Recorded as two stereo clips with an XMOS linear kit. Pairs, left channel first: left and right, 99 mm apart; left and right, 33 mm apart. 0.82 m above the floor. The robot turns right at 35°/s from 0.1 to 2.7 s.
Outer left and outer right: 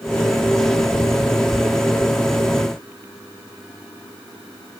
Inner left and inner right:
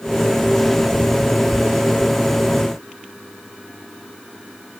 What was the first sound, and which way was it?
Only background noise.